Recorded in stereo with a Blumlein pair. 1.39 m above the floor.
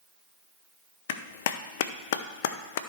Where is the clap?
55° left, 0.6 m.